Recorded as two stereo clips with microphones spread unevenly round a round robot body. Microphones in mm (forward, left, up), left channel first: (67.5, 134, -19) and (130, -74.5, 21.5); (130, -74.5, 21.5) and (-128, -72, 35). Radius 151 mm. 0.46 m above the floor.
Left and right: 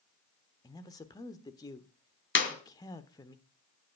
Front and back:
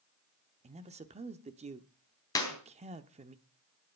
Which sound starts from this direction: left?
A clap, at 2.4 s.